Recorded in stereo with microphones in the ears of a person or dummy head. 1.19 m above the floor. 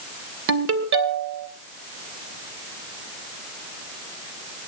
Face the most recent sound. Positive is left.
turn(degrees=-70)  # may be behind; listen again after turning